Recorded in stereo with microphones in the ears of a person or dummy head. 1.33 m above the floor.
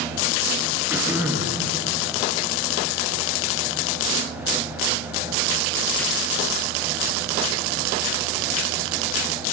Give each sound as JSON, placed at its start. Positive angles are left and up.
{"t": 0.9, "sound": "throat clearing", "side_deg": -10, "distance_m": 3.5}